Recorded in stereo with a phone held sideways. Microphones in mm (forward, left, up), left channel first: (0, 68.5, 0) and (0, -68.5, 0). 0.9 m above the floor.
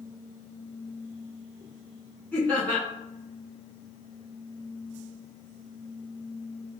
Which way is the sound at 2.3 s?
10° left (ahead or behind).